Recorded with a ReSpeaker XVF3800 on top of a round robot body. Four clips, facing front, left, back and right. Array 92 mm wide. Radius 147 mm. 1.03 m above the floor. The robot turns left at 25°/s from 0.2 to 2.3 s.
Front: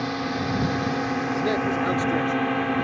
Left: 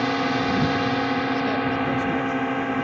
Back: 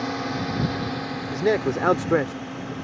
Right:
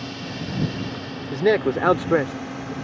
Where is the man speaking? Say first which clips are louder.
Right 3 dB, back 5 dB; 105° right; by 2.7 s 130° right.